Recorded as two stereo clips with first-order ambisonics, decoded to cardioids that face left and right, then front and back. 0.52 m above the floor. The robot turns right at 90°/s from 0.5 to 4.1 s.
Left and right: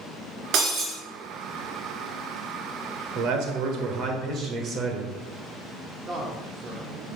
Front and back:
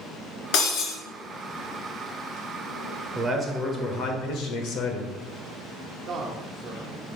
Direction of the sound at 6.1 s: 145° right.